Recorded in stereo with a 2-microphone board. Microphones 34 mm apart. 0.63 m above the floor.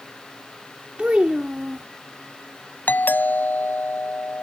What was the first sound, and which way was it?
A child speaking, 30° right (ahead or behind).